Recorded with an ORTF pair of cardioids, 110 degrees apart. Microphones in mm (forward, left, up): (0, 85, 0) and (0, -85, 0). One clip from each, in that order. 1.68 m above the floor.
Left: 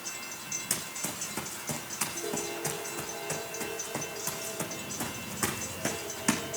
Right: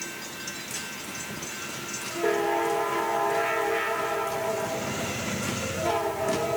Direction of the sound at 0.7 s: 70° left.